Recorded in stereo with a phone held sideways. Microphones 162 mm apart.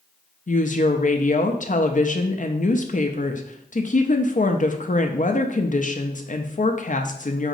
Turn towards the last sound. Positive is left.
turn(degrees=50)  # may be behind; listen again after turning